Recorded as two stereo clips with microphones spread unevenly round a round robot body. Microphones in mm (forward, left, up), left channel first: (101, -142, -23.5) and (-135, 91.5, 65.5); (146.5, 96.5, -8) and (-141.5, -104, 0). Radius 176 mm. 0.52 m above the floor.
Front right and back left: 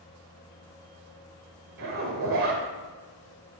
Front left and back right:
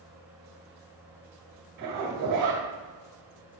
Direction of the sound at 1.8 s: 170° left.